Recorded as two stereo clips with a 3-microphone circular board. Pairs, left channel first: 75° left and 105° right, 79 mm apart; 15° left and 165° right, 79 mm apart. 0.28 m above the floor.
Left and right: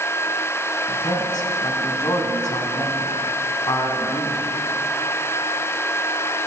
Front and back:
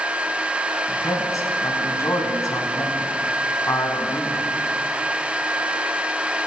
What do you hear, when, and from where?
0.9 s a man speaking: 60° left, 2 m